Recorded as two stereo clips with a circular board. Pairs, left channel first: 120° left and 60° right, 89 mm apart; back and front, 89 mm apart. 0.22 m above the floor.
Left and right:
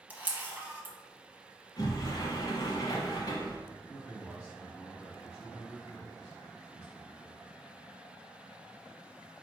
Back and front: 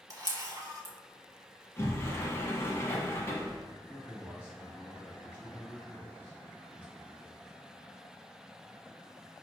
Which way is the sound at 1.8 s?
135° left.